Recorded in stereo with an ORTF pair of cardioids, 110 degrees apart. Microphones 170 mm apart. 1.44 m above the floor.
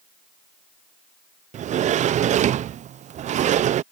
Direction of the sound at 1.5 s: 50° right.